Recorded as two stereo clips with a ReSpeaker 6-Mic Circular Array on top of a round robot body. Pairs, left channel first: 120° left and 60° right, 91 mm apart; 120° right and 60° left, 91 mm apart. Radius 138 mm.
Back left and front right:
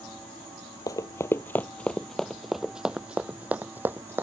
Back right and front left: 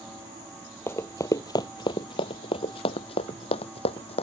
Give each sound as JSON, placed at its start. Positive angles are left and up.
{"t": 0.9, "sound": "running footsteps", "azimuth_deg": 175}